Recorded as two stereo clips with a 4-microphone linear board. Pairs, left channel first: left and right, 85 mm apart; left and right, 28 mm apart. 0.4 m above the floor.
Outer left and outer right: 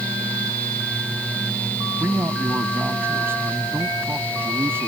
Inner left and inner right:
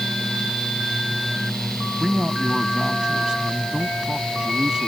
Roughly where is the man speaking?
Right.